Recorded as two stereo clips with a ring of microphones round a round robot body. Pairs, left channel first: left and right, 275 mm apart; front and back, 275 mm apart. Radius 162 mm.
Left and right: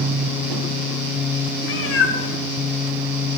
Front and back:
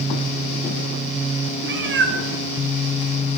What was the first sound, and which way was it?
A cat meowing, 135° left.